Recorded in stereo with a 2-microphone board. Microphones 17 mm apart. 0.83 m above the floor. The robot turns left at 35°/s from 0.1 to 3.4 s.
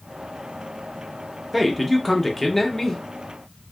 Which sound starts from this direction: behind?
A man speaking, at 1.5 s.